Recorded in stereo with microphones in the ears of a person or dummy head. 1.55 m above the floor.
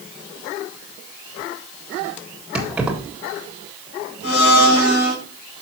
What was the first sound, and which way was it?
Keys jangling, 10° right (ahead or behind).